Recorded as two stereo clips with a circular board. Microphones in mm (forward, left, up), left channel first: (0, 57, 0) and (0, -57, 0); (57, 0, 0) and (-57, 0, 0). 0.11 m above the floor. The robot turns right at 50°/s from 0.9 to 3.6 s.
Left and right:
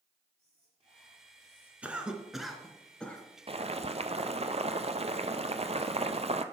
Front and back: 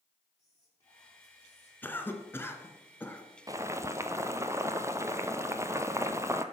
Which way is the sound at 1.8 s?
35° right.